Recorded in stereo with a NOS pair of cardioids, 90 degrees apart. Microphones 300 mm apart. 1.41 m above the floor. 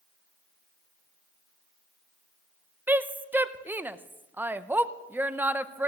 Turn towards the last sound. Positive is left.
turn(degrees=-5)